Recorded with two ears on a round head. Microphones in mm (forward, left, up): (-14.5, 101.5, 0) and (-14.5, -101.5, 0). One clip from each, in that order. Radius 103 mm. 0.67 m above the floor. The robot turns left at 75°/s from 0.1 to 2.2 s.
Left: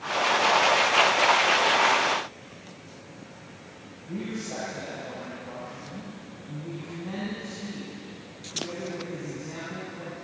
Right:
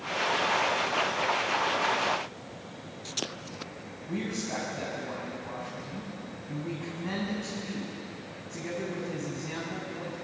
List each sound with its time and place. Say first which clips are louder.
4.1 s a man speaking: right 1 dB; 75° right (ahead or behind), 5.5 m